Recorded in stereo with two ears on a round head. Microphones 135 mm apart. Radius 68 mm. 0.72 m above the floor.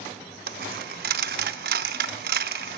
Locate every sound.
0.5 s a dropped coin: 75° right (ahead or behind), 0.6 m